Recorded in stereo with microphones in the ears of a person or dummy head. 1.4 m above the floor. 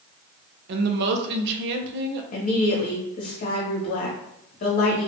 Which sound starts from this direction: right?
A woman speaking, at 0.7 s.